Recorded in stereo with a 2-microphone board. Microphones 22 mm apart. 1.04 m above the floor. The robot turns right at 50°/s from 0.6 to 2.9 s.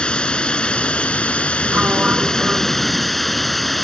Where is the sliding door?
110° right; by 3.2 s 50° right.